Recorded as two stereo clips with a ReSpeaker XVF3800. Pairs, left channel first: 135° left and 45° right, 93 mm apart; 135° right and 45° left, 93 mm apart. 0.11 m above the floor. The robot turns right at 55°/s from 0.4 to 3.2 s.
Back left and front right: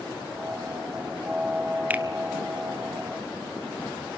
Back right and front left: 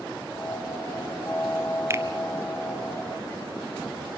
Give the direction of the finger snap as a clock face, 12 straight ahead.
12 o'clock.